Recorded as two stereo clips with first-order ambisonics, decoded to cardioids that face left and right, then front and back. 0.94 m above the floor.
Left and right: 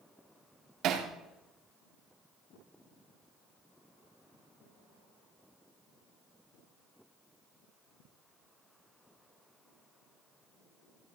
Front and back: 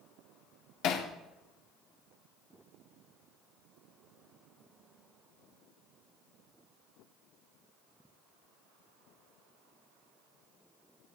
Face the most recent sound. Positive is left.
turn(degrees=-40)